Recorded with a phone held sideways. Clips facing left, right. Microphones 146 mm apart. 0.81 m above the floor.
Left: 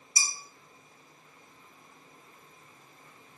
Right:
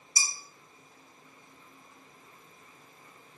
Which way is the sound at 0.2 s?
55° right (ahead or behind).